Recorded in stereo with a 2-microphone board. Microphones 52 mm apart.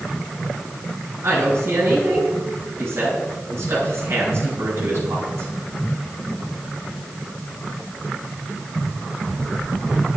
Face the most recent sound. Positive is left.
turn(degrees=-60)  # may be behind; listen again after turning